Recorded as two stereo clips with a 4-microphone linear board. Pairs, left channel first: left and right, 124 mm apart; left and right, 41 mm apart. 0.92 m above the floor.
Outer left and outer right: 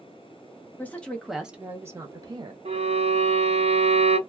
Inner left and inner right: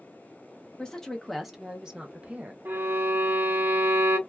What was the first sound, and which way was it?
A woman speaking, 15° left (ahead or behind).